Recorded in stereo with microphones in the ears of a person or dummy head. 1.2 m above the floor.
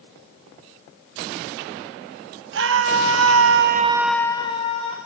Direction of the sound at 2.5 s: 70° right (ahead or behind).